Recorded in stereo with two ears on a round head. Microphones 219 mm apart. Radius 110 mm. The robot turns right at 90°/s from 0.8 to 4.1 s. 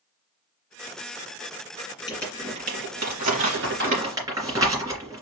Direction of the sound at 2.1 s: 20° left (ahead or behind).